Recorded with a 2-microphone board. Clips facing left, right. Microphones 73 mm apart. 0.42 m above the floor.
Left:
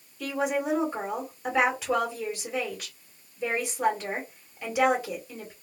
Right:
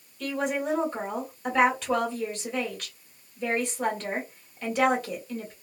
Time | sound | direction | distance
0.2 | a woman speaking | 10° left (ahead or behind) | 1.4 m